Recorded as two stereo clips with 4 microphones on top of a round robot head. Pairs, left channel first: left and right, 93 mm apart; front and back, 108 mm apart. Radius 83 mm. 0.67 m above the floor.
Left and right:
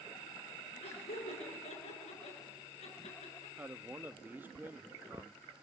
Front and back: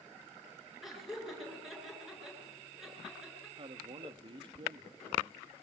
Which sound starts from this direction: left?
Laughter, at 0.8 s.